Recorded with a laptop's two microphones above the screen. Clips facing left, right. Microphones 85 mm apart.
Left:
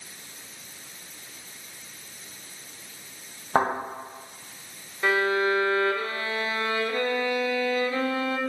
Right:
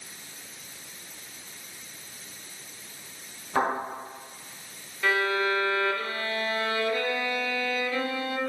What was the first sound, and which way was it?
A thud, 65° left (ahead or behind).